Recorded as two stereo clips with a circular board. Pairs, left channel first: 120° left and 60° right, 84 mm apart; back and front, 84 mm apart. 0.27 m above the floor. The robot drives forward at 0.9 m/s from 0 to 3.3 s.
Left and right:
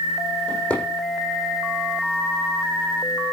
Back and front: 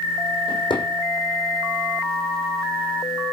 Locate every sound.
0.5 s a drawer: 160° right, 6 m